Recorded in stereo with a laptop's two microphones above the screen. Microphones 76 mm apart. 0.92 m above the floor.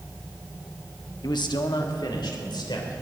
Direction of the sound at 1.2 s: 70° left (ahead or behind).